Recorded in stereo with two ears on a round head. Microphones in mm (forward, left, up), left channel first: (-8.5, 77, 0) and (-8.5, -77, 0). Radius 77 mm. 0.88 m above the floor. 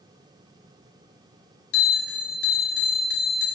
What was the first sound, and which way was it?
A bell, 65° left (ahead or behind).